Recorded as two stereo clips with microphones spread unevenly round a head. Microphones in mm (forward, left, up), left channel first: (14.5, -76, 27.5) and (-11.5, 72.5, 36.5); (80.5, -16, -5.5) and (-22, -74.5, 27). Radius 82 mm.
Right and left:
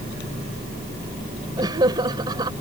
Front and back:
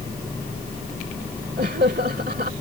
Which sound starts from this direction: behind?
Laughter, at 1.6 s.